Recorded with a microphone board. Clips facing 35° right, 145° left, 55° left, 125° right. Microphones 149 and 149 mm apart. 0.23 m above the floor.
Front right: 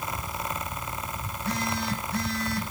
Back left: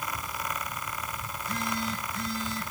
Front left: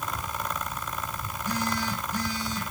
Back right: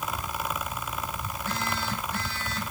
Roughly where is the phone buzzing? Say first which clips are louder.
Front right 3 dB, front left 4 dB; ahead.